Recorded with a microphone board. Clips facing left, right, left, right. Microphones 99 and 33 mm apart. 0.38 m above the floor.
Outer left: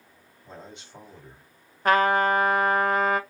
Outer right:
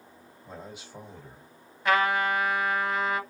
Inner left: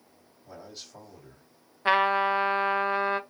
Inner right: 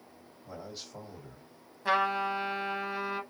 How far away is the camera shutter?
No camera shutter in this recording.